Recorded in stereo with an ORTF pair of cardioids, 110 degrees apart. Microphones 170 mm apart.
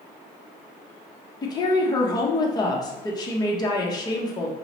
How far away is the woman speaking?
About 0.8 m.